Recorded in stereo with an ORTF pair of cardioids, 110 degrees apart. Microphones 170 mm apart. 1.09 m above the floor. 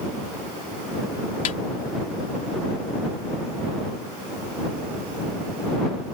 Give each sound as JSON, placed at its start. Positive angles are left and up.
{"t": 1.4, "sound": "a snare drum", "azimuth_deg": 50}